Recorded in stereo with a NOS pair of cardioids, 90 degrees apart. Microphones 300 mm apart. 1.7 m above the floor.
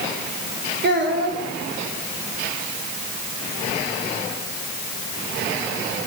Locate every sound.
0.8 s a child speaking: 35° right, 3 m